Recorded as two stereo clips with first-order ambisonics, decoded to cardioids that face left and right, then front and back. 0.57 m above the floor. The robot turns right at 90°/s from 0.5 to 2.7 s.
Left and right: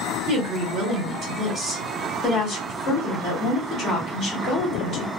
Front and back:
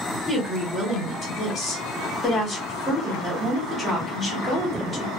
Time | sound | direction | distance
0.3 | a woman speaking | 100° right | 1.1 m